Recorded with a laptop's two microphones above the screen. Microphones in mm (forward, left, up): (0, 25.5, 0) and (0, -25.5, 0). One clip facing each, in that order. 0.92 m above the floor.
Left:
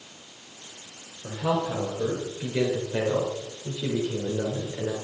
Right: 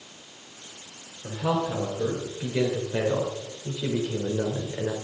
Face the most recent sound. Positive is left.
turn(degrees=-25)  # may be behind; listen again after turning